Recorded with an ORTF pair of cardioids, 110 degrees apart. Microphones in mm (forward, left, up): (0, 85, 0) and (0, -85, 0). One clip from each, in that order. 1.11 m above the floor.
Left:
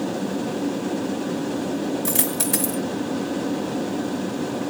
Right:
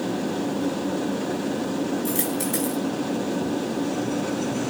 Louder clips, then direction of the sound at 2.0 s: Left 1 dB; 55° left.